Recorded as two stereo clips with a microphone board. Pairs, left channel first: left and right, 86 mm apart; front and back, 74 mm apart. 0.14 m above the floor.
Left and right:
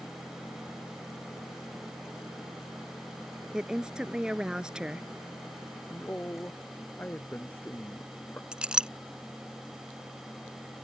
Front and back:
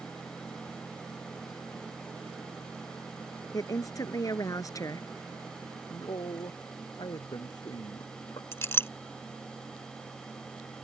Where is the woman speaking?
15° right.